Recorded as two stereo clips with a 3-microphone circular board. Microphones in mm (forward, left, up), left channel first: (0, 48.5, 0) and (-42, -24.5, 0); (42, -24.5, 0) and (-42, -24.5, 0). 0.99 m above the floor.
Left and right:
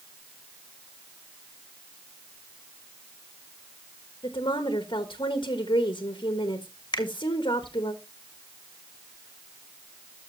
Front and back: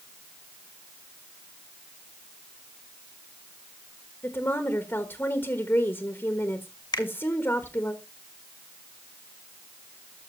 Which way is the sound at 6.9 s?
30° left.